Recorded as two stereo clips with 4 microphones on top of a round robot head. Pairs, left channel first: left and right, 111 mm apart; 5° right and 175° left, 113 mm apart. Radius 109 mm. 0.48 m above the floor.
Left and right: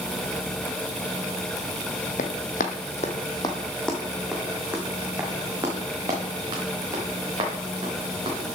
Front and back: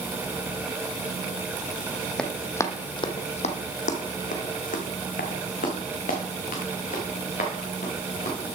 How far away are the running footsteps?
About 0.9 m.